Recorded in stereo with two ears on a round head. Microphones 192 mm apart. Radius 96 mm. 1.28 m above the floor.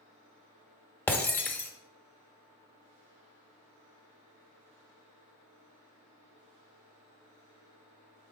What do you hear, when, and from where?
1.1 s breaking glass: 10° left (ahead or behind), 0.8 m